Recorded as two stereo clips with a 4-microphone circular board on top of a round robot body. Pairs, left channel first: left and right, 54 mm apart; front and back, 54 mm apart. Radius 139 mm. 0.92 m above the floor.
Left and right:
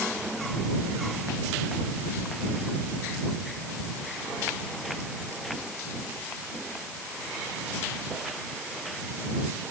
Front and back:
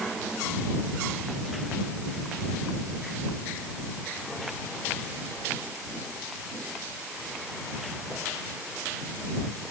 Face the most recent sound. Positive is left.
No sound to turn to.